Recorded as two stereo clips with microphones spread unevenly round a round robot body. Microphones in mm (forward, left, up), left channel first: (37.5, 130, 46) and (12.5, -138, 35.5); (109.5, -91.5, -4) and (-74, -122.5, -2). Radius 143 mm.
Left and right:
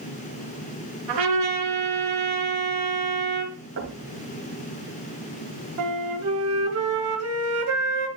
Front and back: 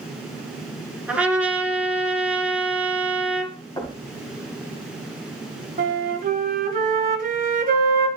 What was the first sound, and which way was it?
A trumpet, 85° right.